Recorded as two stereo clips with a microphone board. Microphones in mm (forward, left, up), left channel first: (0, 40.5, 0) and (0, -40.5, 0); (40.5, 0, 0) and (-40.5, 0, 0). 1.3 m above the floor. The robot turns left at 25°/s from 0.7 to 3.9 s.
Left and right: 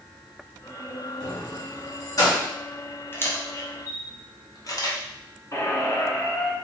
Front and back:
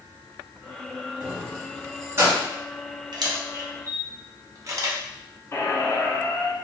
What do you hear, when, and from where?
1.2 s keys jangling: 150° left, 1.1 m; by 2.5 s 120° left, 1.1 m
3.1 s a camera shutter: 150° left, 0.6 m; by 5.0 s 135° left, 0.6 m
5.5 s a squeak: 50° left, 0.6 m